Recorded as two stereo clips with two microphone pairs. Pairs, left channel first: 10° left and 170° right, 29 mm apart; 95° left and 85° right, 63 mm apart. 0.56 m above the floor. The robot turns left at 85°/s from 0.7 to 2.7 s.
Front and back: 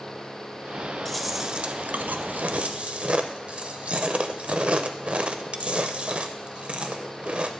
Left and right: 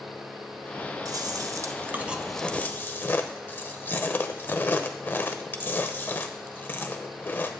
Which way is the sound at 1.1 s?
70° right.